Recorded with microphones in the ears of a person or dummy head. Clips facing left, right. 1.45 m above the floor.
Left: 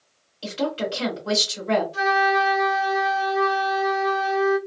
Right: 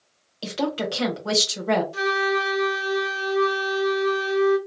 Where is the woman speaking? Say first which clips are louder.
Even; 65° right (ahead or behind), 1.2 m.